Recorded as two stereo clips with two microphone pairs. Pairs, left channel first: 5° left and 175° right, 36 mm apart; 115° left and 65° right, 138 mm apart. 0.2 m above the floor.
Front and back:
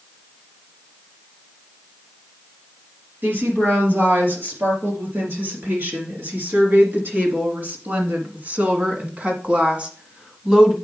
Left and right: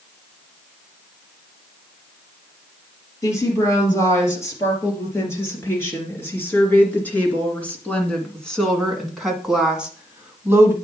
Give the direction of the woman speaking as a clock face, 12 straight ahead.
6 o'clock.